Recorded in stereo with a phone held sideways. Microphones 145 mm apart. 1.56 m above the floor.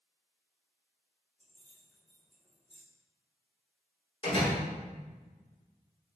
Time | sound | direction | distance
1.4 | keys jangling | 15° left (ahead or behind) | 3 m
4.2 | a door slam | 40° left (ahead or behind) | 3.5 m